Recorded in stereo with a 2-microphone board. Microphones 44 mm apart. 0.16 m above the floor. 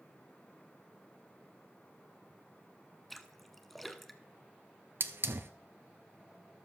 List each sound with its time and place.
3.1 s a splash: centre (ahead or behind), 0.9 m
5.0 s a hiss: 60° right (ahead or behind), 0.8 m